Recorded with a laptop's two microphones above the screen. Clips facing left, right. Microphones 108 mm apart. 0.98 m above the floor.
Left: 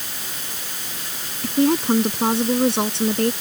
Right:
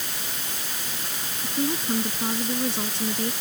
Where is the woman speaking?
80° left; by 3.3 s 75° left (ahead or behind).